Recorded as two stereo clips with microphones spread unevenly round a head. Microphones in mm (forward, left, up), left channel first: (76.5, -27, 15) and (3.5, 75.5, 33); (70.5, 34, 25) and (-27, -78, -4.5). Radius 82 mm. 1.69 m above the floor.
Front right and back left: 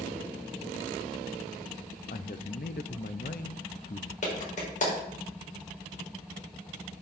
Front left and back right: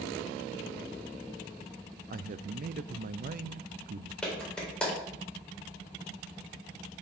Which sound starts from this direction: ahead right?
A clap, at 4.2 s.